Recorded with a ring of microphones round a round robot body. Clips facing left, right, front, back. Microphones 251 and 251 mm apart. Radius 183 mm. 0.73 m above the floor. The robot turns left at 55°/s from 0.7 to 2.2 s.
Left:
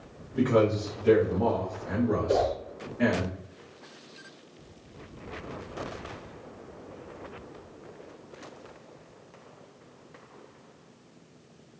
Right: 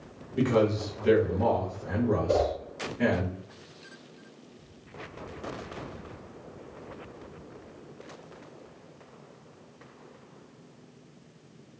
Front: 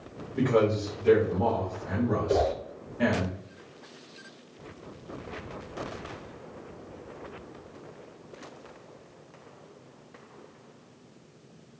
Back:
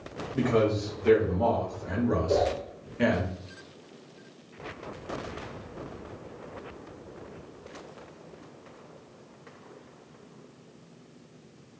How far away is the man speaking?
About 0.9 m.